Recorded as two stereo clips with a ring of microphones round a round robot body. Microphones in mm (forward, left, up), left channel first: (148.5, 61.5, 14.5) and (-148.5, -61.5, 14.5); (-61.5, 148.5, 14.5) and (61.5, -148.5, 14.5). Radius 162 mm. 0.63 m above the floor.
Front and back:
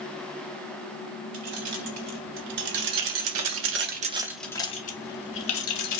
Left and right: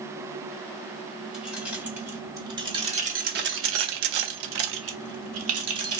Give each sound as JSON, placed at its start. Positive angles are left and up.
{"t": 1.3, "sound": "keys jangling", "azimuth_deg": -155, "distance_m": 1.7}